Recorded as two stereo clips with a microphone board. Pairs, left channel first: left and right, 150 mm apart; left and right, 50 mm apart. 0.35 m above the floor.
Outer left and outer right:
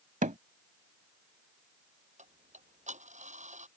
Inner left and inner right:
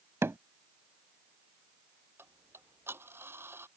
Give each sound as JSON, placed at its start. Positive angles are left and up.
{"t": 0.2, "sound": "hammering", "side_deg": -65}
{"t": 2.2, "sound": "ticking", "side_deg": -55}